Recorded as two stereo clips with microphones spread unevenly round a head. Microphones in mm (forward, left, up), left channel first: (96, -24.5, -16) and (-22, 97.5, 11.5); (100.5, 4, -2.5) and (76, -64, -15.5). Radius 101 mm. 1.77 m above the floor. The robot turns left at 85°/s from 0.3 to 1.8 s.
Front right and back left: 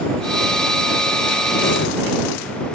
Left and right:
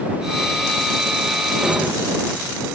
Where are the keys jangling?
25° right; by 1.9 s 40° right.